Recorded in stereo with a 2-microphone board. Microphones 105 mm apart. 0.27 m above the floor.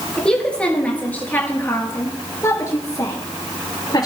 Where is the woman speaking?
5° left (ahead or behind), 4.5 m; by 4.1 s 40° left (ahead or behind), 5 m.